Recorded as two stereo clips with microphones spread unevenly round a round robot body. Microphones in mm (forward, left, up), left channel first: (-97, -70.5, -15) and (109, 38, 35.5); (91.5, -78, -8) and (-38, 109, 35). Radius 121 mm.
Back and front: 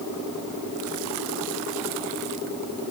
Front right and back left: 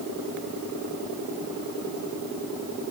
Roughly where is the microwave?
No microwave in this recording.